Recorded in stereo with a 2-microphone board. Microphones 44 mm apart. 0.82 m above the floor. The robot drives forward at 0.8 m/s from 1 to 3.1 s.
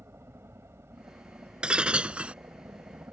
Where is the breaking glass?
20° right (ahead or behind); by 2.3 s 25° right (ahead or behind).